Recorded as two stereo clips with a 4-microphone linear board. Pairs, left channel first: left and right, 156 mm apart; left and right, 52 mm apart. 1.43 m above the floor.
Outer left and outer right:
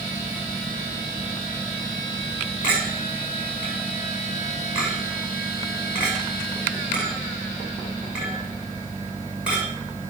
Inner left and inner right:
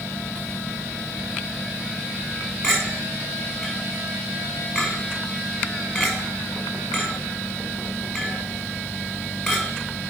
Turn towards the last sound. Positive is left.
turn(degrees=-10)  # may be behind; listen again after turning